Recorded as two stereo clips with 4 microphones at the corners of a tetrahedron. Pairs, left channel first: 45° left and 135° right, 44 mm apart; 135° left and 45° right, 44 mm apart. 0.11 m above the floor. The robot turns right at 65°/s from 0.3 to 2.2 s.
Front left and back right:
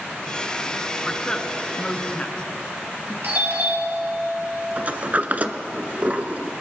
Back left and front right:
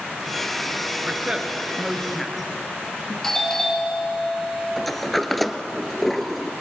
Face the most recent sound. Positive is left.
turn(degrees=-140)